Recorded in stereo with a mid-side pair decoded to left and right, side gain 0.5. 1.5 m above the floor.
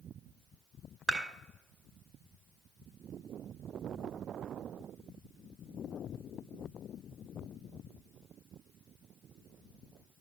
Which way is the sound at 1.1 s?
25° right.